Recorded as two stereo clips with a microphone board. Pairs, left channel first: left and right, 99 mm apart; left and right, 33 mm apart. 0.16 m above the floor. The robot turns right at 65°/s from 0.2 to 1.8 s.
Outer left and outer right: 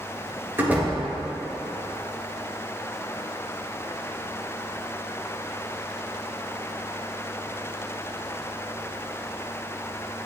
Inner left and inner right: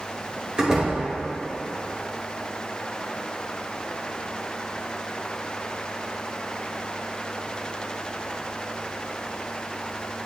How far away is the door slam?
About 2.5 m.